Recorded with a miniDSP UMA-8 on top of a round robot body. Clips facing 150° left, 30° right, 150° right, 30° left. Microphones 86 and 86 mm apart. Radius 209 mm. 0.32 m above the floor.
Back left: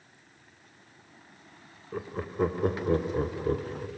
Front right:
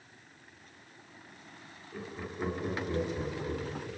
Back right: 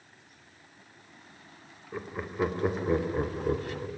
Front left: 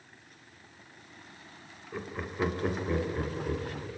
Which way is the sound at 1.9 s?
125° left.